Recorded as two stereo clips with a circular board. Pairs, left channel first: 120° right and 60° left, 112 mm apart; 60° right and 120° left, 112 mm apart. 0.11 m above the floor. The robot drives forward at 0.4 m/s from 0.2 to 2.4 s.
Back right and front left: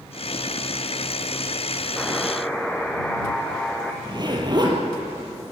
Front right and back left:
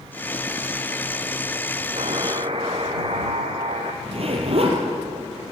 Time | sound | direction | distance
2.0 | a buzzer | 150° left | 1.9 m
4.0 | a zipper | 105° left | 4 m